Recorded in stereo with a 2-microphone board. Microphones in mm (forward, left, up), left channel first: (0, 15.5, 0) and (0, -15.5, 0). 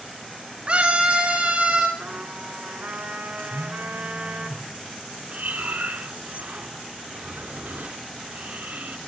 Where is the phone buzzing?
60° right (ahead or behind), 8.5 m.